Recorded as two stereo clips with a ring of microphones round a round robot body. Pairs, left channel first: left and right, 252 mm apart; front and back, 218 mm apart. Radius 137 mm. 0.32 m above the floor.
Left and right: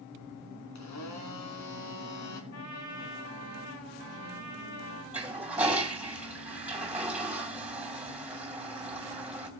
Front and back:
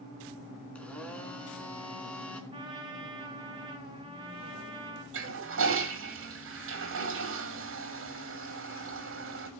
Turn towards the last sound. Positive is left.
turn(degrees=-175)